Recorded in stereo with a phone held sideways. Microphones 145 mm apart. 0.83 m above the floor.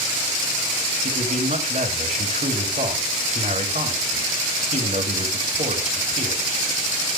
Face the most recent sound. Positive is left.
turn(degrees=-60)  # may be behind; listen again after turning